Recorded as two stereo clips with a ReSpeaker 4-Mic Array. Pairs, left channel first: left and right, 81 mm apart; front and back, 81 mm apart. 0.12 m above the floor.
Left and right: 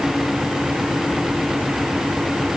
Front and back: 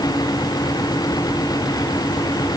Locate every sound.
Only background noise.